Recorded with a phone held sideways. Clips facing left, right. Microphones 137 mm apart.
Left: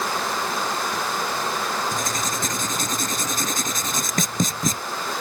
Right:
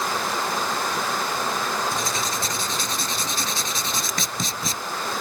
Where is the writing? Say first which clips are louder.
Even; 45° left (ahead or behind).